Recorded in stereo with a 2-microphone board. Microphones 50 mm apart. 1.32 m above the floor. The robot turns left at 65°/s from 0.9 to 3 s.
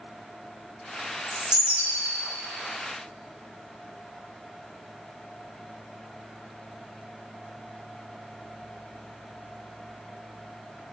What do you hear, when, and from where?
1.3 s a bird: 5° left, 3 m; by 2.1 s 50° right, 3 m